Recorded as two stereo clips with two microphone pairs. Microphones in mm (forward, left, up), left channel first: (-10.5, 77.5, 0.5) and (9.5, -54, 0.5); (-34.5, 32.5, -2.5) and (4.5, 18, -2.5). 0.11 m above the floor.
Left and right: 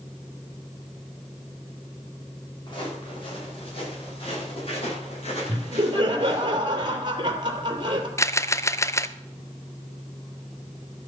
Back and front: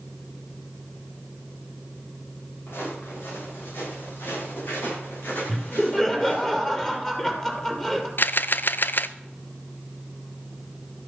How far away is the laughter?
About 2.5 m.